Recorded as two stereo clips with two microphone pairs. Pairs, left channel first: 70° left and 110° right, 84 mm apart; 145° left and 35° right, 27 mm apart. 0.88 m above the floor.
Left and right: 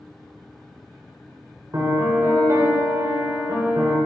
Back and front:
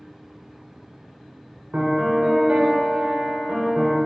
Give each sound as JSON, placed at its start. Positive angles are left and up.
{"t": 1.7, "sound": "a piano", "azimuth_deg": -65, "distance_m": 1.4}